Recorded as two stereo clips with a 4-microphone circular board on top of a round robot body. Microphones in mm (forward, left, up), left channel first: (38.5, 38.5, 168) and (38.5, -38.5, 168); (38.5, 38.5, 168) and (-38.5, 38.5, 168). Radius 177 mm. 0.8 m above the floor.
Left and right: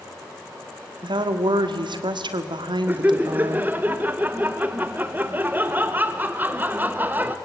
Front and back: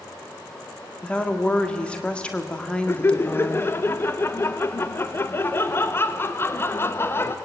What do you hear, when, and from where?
1.0 s a woman speaking: 75° right, 1.7 m
2.9 s laughter: 40° right, 1.2 m